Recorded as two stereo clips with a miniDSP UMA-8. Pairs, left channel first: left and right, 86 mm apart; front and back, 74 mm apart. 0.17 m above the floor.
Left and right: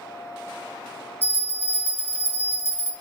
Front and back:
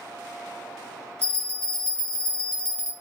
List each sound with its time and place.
1.2 s a bell: 140° left, 0.8 m